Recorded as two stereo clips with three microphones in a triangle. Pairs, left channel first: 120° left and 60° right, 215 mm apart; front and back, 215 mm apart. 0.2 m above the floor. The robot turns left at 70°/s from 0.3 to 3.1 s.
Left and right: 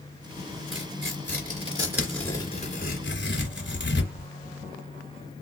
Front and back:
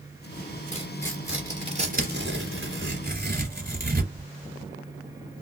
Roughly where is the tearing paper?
Ahead right.